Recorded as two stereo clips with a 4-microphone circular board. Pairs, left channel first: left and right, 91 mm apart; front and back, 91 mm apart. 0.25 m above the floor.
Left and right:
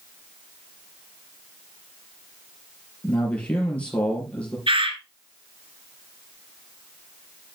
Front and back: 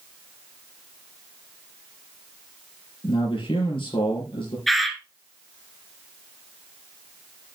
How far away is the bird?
About 1.5 m.